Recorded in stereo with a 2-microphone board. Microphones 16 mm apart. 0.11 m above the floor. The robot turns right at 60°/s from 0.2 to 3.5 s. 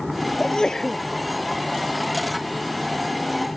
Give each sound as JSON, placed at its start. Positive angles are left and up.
{"t": 0.4, "sound": "a sneeze", "azimuth_deg": 115}